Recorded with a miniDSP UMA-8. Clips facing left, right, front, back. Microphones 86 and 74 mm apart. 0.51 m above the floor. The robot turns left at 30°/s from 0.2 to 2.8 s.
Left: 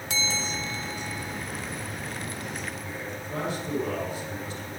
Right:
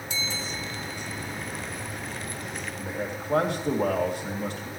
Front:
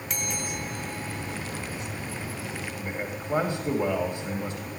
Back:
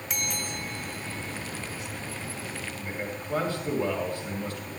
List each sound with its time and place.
0.1 s a bell: 90° left, 1.4 m; by 1.4 s 55° left, 1.4 m
2.8 s a man speaking: 70° right, 2.5 m